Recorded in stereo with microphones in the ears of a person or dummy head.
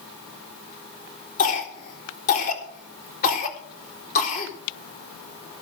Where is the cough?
35° left (ahead or behind), 4 m.